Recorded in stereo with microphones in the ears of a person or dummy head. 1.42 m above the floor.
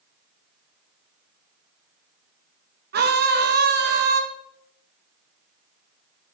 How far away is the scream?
About 2 m.